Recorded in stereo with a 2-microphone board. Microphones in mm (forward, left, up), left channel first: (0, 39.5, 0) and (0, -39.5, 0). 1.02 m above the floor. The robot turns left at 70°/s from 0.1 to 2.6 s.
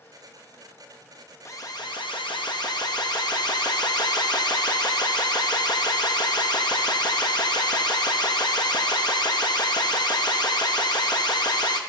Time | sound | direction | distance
1.4 | an alarm | 145° left | 0.9 m